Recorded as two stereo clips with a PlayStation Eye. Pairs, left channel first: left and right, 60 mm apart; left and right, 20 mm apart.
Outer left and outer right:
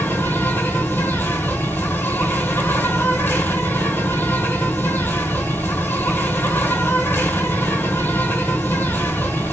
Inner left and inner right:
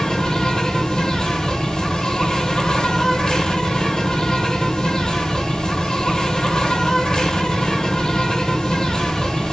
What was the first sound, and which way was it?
An insect, 35° left (ahead or behind).